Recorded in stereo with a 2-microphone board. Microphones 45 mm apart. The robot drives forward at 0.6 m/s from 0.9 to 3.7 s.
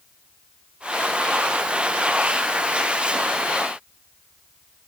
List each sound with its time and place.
Only background noise.